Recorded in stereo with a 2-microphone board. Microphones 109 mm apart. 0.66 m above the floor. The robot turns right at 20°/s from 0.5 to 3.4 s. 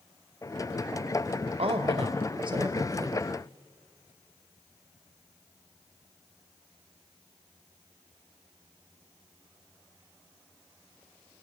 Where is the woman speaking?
65° right, 2 m; by 3.2 s 35° right, 2 m.